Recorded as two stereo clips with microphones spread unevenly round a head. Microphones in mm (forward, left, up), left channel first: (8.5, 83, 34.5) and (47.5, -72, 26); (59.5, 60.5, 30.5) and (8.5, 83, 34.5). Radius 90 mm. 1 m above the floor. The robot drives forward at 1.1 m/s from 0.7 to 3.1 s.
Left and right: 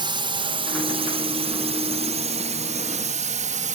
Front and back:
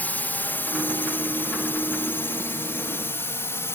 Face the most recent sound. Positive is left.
turn(degrees=-55)